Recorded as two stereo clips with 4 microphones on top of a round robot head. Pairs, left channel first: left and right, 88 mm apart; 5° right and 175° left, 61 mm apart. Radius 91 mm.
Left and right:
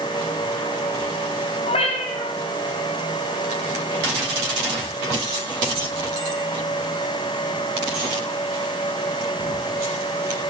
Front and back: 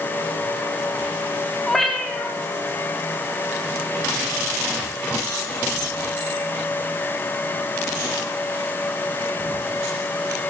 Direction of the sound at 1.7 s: 85° left.